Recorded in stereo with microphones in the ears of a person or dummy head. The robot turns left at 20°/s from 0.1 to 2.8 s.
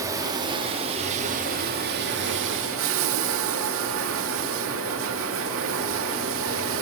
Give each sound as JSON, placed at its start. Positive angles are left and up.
{"t": 0.0, "sound": "running water", "azimuth_deg": -15, "distance_m": 3.0}